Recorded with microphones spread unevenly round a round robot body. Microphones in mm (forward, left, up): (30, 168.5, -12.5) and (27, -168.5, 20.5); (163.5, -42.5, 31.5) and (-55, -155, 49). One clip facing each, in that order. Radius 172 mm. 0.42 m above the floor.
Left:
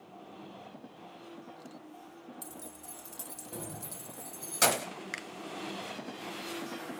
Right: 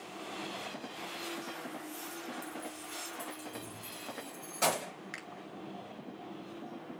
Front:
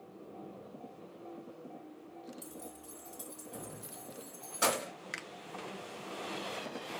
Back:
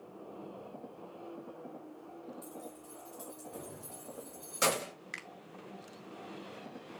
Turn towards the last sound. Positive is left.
turn(degrees=80)